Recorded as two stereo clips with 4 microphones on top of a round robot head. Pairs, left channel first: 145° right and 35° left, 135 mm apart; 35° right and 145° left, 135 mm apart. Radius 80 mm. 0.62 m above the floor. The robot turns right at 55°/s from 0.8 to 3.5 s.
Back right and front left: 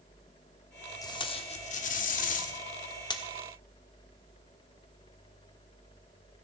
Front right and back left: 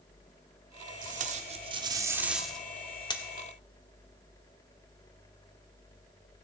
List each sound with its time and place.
1.0 s tape being pulled: 155° left, 1.3 m; by 3.2 s 85° right, 1.3 m